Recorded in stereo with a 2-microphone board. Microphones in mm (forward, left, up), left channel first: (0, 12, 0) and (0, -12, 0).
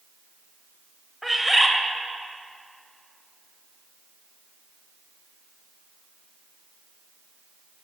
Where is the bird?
10° right (ahead or behind), 1.1 m.